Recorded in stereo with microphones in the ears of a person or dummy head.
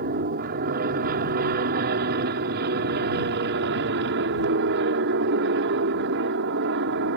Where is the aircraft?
55° right (ahead or behind); by 7.2 s 65° right (ahead or behind).